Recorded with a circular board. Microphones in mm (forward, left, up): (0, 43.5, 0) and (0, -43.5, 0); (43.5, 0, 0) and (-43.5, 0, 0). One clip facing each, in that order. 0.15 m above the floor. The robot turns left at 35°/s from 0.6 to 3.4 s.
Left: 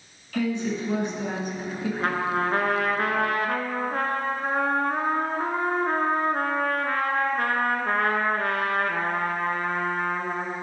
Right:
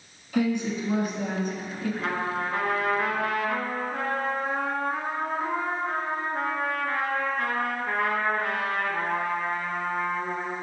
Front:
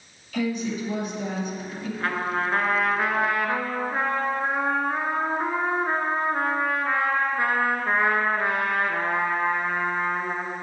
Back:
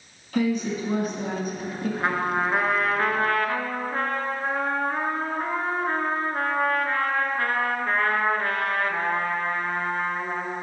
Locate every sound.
0.3 s a woman speaking: 155° right, 1.6 m; by 1.9 s 160° left, 1.6 m
2.0 s a trumpet: 120° left, 0.7 m; by 10.6 s 70° left, 0.7 m